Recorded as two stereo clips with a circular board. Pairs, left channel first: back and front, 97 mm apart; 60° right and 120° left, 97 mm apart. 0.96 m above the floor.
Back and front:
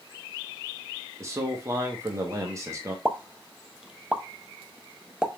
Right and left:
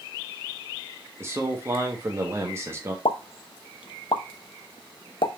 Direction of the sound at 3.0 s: 80° right.